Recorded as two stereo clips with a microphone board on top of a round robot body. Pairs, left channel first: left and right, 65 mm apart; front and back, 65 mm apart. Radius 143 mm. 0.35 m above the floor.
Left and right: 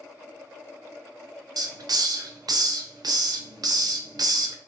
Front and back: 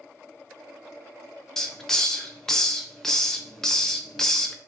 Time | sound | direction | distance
1.6 | a hiss | 85° right | 0.6 m